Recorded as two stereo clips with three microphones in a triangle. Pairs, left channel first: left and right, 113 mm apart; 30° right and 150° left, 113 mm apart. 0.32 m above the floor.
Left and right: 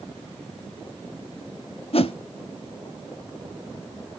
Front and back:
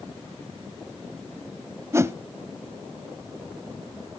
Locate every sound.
1.9 s a whoosh: 90° left, 0.6 m